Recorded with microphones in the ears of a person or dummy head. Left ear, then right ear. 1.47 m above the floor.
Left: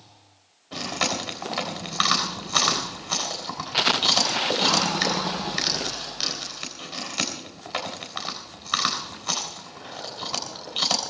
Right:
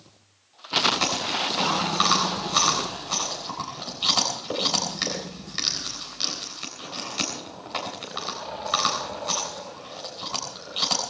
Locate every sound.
0.7 s chewing: 15° left (ahead or behind), 3.5 m